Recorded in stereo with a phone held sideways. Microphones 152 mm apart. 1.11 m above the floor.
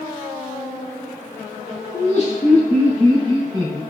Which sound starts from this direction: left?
Laughter, at 1.9 s.